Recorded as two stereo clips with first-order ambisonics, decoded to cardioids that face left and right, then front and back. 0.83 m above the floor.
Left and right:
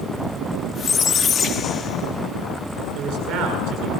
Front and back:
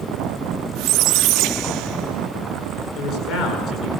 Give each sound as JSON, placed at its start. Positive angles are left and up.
{"t": 0.8, "sound": "a squeak", "azimuth_deg": 155, "distance_m": 1.1}
{"t": 3.0, "sound": "a man speaking", "azimuth_deg": -50, "distance_m": 9.5}